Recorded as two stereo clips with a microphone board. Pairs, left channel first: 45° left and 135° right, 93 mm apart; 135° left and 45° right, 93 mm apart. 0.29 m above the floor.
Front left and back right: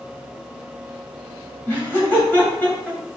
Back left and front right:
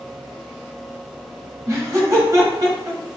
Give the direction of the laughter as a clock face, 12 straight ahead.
12 o'clock.